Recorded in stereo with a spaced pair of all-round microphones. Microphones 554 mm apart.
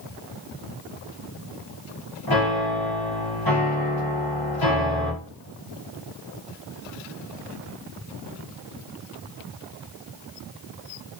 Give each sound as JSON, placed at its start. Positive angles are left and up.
{"t": 2.3, "sound": "a piano", "side_deg": 40, "distance_m": 0.9}